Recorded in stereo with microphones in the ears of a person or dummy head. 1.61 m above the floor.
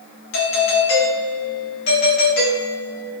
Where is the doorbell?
55° left (ahead or behind), 2 m.